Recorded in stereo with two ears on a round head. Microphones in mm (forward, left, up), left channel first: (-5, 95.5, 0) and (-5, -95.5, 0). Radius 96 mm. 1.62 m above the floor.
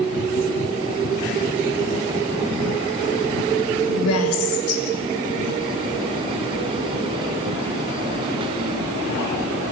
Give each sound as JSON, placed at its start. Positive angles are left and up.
{"t": 4.0, "sound": "a woman speaking", "side_deg": 80, "distance_m": 6.0}